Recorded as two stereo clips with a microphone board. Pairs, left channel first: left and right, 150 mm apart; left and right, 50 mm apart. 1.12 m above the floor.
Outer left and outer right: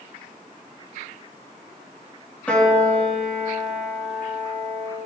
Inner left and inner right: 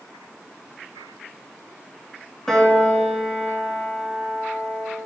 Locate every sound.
2.5 s a piano: 10° left (ahead or behind), 1.7 m